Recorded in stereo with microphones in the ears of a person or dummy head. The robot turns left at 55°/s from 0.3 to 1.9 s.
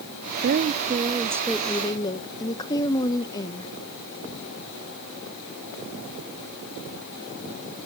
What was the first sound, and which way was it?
A woman speaking, 115° right.